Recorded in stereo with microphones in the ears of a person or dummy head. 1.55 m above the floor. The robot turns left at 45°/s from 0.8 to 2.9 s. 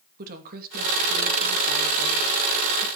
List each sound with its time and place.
0.2 s a woman speaking: 55° right, 2.5 m; by 2.9 s 150° right, 2.5 m